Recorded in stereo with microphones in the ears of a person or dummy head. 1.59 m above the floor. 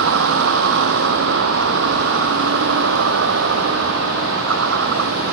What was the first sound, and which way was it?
A vehicle, 70° right (ahead or behind).